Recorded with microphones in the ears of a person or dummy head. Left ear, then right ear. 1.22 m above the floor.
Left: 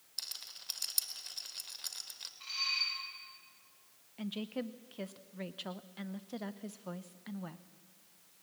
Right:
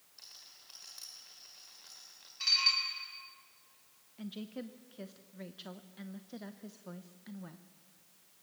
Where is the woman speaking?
25° left (ahead or behind), 0.7 m.